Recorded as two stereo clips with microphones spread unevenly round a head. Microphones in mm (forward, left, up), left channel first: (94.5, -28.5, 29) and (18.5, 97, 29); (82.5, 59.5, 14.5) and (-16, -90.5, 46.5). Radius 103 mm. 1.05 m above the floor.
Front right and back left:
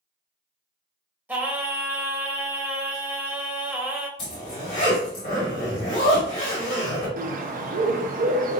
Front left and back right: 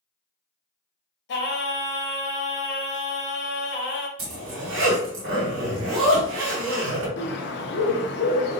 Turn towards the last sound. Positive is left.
turn(degrees=100)